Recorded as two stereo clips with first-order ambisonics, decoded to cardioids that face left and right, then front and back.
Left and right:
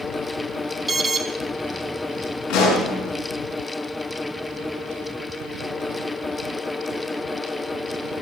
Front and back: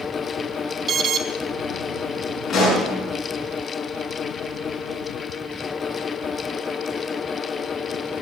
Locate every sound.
0.9 s an alarm: 150° right, 0.7 m
2.5 s a pop: 70° left, 5.5 m